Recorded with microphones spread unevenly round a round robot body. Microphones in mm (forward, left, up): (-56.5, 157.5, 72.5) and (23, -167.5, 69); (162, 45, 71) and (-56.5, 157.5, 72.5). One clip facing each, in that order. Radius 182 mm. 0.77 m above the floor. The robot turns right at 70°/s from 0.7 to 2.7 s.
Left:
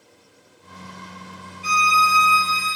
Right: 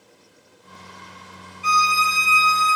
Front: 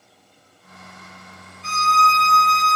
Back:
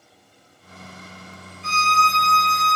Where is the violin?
165° right, 1.5 m; by 2.8 s 90° right, 1.5 m.